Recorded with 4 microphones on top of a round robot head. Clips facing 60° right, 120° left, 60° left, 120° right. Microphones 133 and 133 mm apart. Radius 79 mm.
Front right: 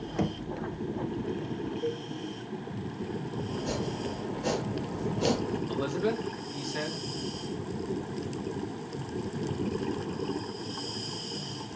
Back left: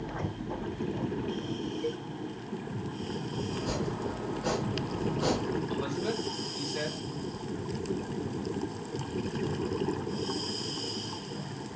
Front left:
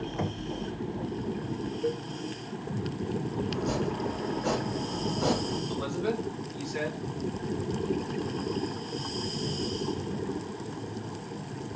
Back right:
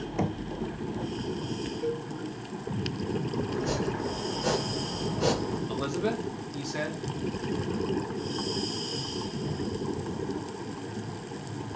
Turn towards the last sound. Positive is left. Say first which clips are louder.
# front right 3 dB, back right 1 dB
turn(degrees=-75)